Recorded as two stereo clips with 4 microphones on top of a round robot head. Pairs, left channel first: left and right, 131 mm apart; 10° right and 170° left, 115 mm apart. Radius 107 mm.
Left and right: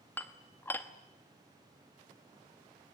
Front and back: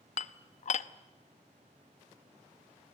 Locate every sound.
0.2 s dishes clattering: 10° left, 0.8 m